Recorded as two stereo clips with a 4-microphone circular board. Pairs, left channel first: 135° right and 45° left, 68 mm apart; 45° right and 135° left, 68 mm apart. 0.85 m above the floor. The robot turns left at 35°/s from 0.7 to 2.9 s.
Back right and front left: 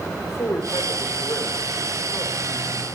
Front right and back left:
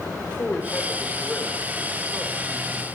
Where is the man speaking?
110° right, 2.5 m; by 2.9 s 175° left, 2.5 m.